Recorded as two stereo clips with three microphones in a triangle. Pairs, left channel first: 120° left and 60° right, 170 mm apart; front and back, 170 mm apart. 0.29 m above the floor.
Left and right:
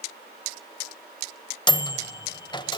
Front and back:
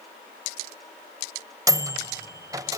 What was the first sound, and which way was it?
A microwave, 140° left.